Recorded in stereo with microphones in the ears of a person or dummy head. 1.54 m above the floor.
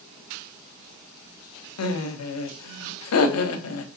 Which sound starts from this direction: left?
Laughter, at 1.8 s.